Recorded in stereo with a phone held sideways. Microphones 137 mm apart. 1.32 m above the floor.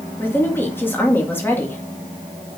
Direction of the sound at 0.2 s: 15° left (ahead or behind).